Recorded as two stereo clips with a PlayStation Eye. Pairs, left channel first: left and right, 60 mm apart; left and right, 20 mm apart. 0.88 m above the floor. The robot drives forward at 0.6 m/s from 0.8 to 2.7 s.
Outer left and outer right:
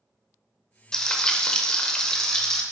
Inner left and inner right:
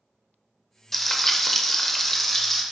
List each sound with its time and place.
0.9 s frying: 10° left (ahead or behind), 0.6 m